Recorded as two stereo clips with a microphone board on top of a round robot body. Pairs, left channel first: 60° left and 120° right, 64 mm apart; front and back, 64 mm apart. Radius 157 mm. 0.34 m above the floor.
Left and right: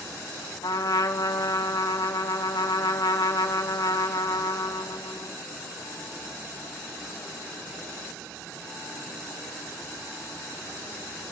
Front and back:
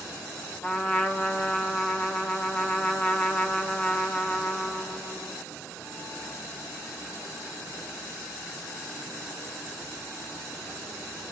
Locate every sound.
0.6 s a trumpet: 70° left, 3 m